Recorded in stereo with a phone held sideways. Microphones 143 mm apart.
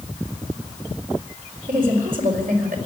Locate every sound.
1.7 s a woman speaking: 75° right (ahead or behind), 4.5 m